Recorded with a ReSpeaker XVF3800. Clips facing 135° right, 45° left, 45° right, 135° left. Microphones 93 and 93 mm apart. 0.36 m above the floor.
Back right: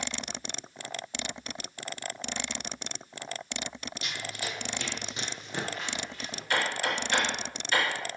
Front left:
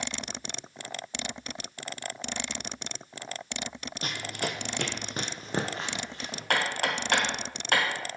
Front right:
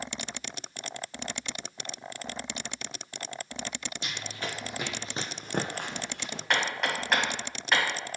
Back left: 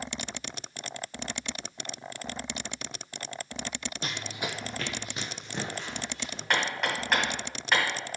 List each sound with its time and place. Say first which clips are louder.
4.0 s running footsteps: front left 5 dB, back left 2 dB; 90° left, 0.7 m; by 6.4 s 20° right, 1.5 m
6.5 s hammering: front left 1 dB, even; 45° left, 2.5 m